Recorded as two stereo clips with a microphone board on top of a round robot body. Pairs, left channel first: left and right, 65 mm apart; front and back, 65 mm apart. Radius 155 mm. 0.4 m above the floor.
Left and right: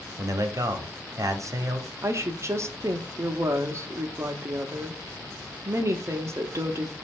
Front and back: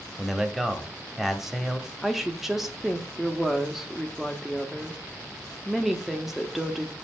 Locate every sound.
0.2 s a man speaking: 95° right, 1.4 m
2.0 s a woman speaking: 95° right, 1.1 m